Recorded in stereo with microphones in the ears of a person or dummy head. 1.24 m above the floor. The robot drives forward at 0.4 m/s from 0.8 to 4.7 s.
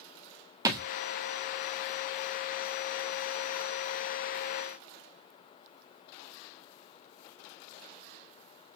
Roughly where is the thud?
Centre.